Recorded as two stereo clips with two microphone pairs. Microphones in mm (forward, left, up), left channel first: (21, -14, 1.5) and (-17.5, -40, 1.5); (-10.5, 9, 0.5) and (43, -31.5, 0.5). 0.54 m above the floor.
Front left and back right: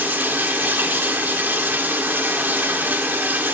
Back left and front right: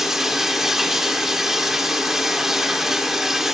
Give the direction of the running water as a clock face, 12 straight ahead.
4 o'clock.